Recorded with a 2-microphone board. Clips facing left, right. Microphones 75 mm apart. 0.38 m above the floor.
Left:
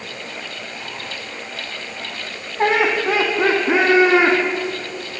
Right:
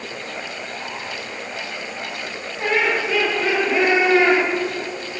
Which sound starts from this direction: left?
Laughter, at 2.6 s.